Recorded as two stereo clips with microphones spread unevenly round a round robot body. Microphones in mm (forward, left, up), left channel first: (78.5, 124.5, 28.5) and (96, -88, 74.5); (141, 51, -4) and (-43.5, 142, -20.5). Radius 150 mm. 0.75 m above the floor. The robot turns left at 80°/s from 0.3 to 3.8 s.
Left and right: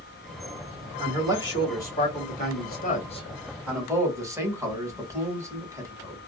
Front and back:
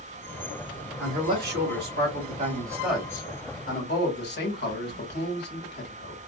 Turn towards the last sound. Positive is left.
turn(degrees=-5)